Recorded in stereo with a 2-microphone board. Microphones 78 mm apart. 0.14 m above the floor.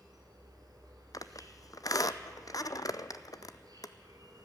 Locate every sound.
0.0 s an insect: 60° right (ahead or behind), 3.5 m
1.1 s a squeak: 55° left (ahead or behind), 0.5 m